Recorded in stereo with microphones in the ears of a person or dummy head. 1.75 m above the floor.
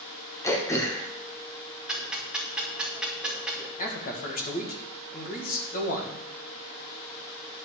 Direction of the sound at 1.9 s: 5° right (ahead or behind).